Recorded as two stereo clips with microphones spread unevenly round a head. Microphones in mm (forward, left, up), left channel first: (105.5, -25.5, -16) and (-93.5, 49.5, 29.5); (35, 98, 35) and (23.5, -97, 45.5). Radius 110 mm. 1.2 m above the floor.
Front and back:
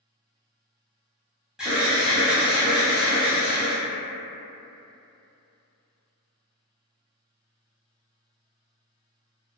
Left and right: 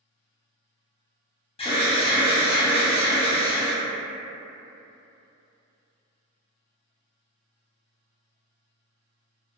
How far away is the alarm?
About 0.7 m.